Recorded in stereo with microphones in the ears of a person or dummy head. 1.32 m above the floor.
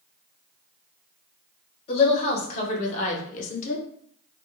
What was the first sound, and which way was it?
A woman speaking, 35° left (ahead or behind).